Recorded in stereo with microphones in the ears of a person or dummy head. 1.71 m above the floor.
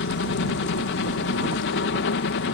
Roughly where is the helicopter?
Left.